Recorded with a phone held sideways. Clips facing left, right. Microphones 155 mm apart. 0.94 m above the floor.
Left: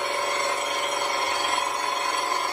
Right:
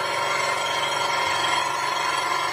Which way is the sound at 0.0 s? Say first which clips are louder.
Right 1 dB; 70° right (ahead or behind).